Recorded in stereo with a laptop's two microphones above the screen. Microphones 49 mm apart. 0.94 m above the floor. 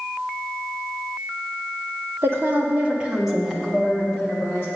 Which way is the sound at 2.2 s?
55° right (ahead or behind).